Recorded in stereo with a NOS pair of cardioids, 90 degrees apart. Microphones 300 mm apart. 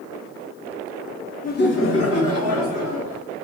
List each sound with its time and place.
1.4 s laughter: 30° left, 0.6 m; by 3.2 s 65° left, 2 m